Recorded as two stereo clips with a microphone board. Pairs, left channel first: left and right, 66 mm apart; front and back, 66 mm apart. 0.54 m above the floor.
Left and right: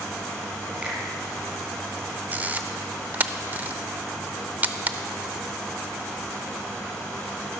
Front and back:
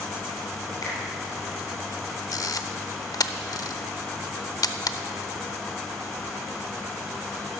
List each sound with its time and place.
0.8 s a finger snap: 20° right, 4 m
2.3 s a camera shutter: 25° right, 0.6 m